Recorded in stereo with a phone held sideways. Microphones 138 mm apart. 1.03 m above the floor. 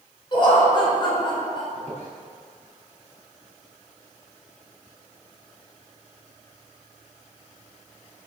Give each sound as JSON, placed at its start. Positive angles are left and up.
{"t": 0.3, "sound": "laughter", "side_deg": 40, "distance_m": 4.0}
{"t": 1.8, "sound": "a squeak", "side_deg": 50, "distance_m": 4.5}